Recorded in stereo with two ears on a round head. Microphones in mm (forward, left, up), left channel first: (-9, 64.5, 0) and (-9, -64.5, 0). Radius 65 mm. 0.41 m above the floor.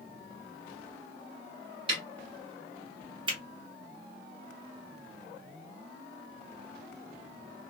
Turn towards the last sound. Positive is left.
turn(degrees=-35)  # may be behind; listen again after turning